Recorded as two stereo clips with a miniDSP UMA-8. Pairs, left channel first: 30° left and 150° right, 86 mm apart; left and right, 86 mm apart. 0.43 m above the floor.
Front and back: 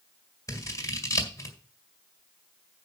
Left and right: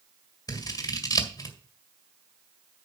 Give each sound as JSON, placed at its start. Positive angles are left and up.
{"t": 0.5, "sound": "scissors", "azimuth_deg": 65, "distance_m": 1.9}